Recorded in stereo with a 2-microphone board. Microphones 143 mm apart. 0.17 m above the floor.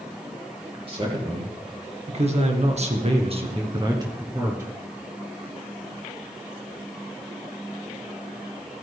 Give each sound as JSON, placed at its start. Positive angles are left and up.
{"t": 0.9, "sound": "a man speaking", "side_deg": -40, "distance_m": 4.0}